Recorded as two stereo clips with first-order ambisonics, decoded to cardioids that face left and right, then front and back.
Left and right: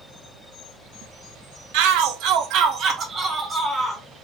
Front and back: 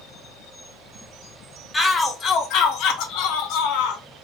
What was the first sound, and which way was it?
A shout, 80° right.